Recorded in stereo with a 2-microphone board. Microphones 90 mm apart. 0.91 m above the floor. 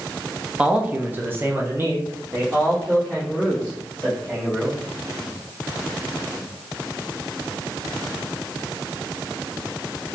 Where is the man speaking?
15° right (ahead or behind), 0.6 m; by 4.8 s 20° right (ahead or behind), 2 m.